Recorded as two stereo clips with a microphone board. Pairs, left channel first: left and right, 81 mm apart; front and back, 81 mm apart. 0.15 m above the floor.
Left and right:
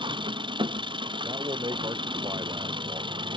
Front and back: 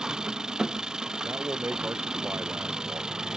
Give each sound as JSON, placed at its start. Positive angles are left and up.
{"t": 0.0, "sound": "an engine running", "azimuth_deg": -100}
{"t": 1.2, "sound": "a man speaking", "azimuth_deg": -120}